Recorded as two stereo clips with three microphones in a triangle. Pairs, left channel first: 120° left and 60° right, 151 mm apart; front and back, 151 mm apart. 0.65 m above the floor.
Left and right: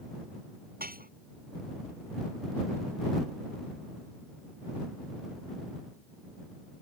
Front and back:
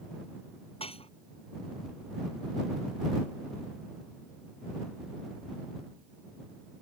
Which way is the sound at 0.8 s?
50° right.